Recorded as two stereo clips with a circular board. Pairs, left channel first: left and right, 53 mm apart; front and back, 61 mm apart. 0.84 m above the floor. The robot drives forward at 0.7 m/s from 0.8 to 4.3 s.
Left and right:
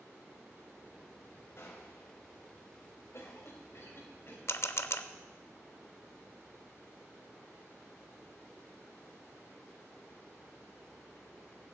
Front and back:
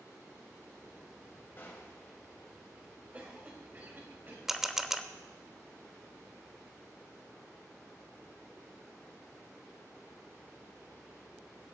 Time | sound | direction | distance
1.6 | a gunshot | 55° left | 3.5 m
3.1 | a cough | 120° left | 4.5 m
4.5 | a camera shutter | 100° left | 0.7 m